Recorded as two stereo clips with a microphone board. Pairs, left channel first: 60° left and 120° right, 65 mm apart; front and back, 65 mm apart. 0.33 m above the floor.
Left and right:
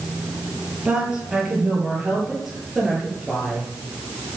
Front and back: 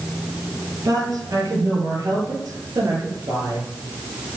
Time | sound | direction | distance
0.8 | a woman speaking | 160° left | 8 m